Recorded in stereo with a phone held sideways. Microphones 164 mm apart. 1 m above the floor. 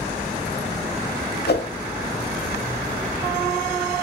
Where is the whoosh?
70° left (ahead or behind), 0.8 m.